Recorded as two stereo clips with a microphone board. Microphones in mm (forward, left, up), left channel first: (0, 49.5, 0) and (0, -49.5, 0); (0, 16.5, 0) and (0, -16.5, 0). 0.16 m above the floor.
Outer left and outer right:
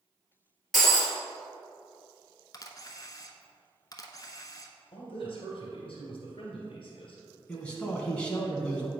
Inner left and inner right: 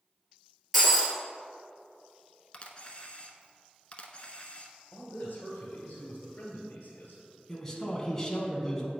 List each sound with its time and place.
0.7 s breaking glass: 5° left (ahead or behind), 1.7 m
2.5 s a camera shutter: 40° left (ahead or behind), 0.7 m
4.9 s a man speaking: 60° left (ahead or behind), 2 m
7.5 s a man speaking: 10° left (ahead or behind), 1.1 m